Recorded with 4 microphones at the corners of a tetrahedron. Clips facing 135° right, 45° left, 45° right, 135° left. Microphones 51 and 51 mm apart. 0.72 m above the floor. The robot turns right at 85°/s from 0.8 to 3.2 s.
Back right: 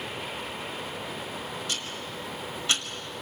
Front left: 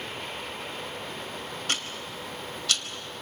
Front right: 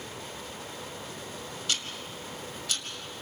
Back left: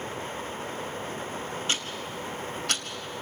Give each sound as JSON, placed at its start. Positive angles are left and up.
{"t": 1.7, "sound": "ticking", "azimuth_deg": 75, "distance_m": 1.5}